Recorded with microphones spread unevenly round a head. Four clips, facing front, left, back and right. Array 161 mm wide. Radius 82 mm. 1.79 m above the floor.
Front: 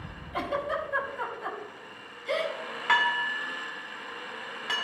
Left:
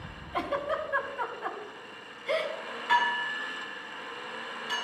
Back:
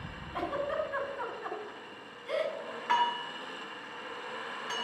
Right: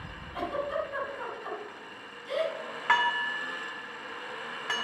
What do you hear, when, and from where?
0.3 s a giggle: 55° left, 4 m
2.9 s dishes clattering: 50° right, 3.5 m